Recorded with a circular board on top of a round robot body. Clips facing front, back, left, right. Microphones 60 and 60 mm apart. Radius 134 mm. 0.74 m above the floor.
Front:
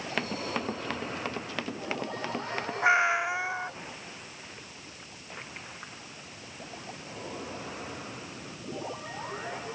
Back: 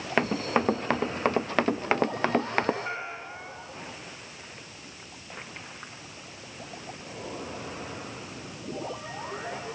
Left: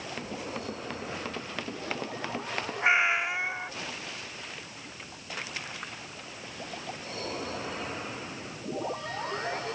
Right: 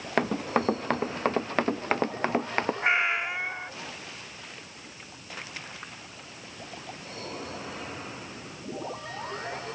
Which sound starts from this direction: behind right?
Running footsteps, at 0.2 s.